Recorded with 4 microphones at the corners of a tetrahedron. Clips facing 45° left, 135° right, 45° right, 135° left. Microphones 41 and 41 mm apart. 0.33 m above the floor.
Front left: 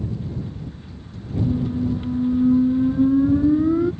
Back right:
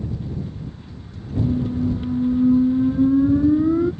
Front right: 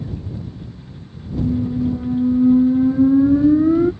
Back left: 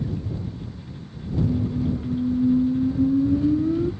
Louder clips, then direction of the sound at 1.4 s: Back right 1 dB, front right 4 dB; 45° right.